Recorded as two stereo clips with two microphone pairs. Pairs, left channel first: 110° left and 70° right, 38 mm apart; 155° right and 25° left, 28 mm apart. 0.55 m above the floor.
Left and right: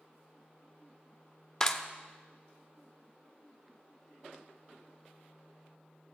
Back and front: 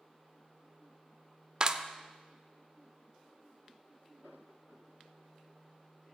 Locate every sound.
1.6 s a clap: 40° left, 0.5 m